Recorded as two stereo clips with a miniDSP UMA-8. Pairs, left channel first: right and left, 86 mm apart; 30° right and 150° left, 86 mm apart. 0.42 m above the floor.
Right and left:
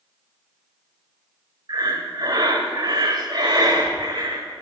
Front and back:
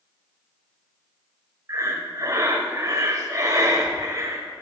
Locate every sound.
1.7 s breathing: 105° left, 1.2 m